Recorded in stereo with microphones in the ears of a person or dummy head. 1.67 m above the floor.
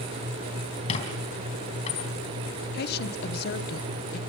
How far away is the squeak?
About 3.5 m.